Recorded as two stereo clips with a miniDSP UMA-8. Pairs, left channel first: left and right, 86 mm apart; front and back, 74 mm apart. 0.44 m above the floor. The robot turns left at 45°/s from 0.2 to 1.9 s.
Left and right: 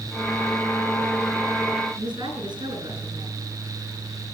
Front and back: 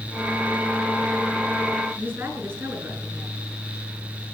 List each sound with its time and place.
2.0 s a woman speaking: 125° right, 5.5 m